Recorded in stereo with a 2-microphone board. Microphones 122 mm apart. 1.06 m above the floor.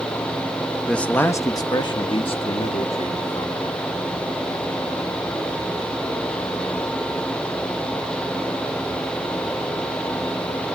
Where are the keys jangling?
No keys jangling in this recording.